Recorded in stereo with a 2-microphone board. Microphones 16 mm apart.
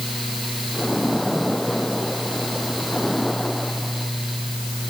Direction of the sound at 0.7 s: 25° left (ahead or behind).